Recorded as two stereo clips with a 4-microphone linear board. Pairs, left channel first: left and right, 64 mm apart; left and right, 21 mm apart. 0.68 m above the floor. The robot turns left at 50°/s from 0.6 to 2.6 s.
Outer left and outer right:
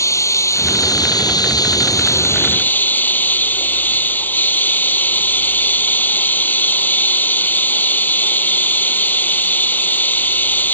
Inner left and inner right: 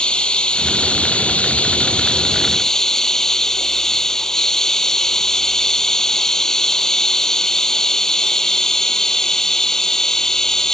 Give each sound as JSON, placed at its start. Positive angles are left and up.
{"t": 0.0, "sound": "running water", "azimuth_deg": 130}